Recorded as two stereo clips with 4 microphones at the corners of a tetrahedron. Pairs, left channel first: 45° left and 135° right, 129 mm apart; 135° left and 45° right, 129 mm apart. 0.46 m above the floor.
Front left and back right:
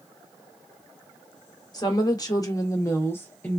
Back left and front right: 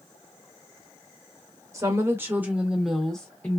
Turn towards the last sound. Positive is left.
turn(degrees=105)